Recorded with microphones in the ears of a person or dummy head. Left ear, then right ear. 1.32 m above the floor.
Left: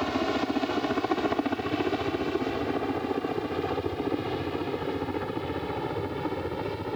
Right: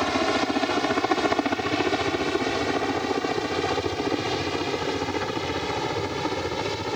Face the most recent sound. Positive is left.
turn(degrees=-75)  # may be behind; listen again after turning